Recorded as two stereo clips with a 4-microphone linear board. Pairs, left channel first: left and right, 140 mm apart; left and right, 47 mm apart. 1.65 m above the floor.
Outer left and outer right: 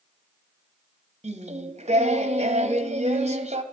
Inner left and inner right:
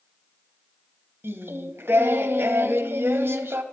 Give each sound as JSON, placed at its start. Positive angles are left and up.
{"t": 1.2, "sound": "singing", "side_deg": -55, "distance_m": 0.7}